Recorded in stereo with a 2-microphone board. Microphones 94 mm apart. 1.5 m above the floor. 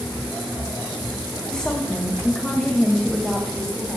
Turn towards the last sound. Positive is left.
turn(degrees=5)  # may be behind; listen again after turning